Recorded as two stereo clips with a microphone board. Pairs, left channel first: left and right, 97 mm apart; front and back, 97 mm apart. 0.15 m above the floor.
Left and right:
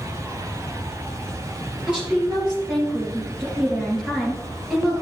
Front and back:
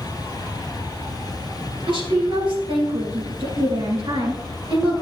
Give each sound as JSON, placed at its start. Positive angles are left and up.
{"t": 1.9, "sound": "a woman speaking", "azimuth_deg": -170, "distance_m": 3.0}